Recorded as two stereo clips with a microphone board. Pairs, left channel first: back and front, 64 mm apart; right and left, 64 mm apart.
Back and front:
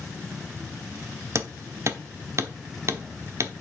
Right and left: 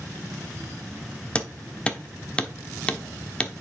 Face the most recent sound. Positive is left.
turn(degrees=-20)